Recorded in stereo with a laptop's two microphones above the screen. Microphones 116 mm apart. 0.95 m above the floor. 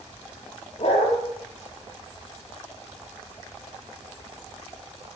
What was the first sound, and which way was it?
A dog barking, 55° left (ahead or behind).